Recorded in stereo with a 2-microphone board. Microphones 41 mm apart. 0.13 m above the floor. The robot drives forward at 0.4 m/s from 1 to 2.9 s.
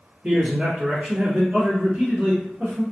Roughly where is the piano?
No piano in this recording.